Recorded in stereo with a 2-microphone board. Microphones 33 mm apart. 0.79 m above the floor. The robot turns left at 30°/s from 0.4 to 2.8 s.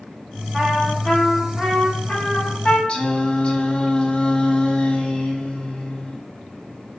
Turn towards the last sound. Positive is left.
turn(degrees=35)  # may be behind; listen again after turning